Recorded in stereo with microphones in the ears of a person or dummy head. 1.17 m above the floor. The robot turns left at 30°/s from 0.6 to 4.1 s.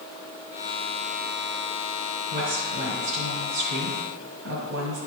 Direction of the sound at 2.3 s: 65° right.